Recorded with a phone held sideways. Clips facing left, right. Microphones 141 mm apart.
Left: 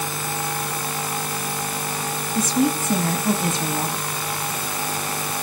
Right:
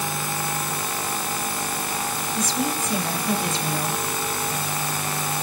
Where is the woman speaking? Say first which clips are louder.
Left 7 dB; 50° left (ahead or behind), 1.4 m.